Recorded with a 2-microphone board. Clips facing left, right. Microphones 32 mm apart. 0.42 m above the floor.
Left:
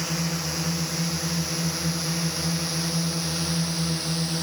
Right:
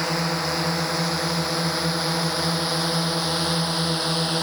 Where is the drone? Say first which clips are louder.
Right 5 dB; 45° right (ahead or behind); by 4.4 s 40° right (ahead or behind).